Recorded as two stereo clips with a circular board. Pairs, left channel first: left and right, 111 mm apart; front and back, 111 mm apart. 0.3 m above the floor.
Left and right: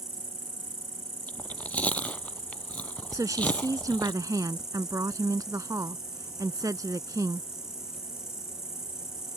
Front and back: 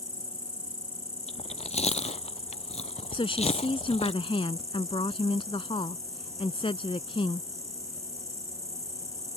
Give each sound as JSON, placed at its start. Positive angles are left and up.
{"t": 0.0, "sound": "an insect", "azimuth_deg": -170}
{"t": 1.3, "sound": "chewing", "azimuth_deg": 10}
{"t": 3.1, "sound": "a woman speaking", "azimuth_deg": -35}